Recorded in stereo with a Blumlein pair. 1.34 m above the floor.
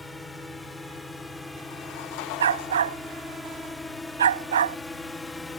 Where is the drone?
5° left; by 5.6 s 10° left.